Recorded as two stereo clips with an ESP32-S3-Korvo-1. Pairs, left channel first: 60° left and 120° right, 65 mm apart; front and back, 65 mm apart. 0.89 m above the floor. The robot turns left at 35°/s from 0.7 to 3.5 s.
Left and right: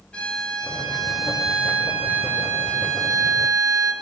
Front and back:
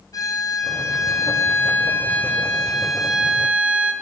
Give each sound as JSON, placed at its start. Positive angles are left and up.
{"t": 0.1, "sound": "a violin", "azimuth_deg": -15, "distance_m": 3.5}